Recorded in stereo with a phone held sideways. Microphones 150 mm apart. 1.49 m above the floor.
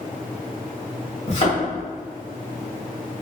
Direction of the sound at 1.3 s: 50° left (ahead or behind).